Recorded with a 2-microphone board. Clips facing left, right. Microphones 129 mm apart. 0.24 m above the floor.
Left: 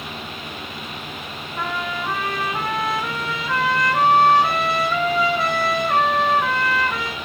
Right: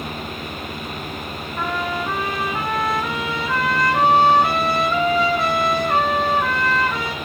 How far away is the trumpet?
About 3 m.